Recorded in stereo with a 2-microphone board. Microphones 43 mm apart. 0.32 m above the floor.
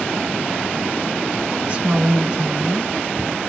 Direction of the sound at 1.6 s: 20° right (ahead or behind).